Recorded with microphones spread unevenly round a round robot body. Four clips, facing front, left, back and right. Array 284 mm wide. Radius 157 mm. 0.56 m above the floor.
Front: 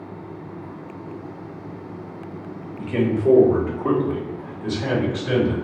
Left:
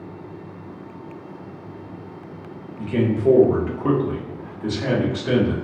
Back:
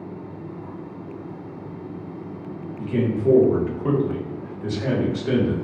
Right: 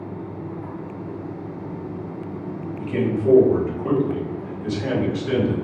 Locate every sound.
2.8 s a man speaking: 5° left, 1.0 m; by 5.5 s 130° left, 1.5 m